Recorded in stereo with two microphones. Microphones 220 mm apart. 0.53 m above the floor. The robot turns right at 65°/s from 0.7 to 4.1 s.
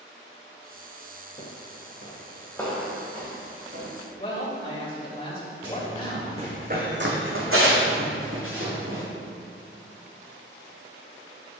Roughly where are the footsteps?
Left.